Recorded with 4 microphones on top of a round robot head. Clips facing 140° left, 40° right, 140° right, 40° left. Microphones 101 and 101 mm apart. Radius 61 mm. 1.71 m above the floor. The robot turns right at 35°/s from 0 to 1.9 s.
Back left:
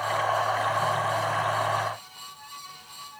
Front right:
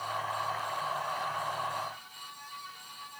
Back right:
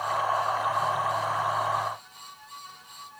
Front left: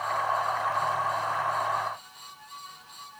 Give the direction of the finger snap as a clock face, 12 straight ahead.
No finger snap in this recording.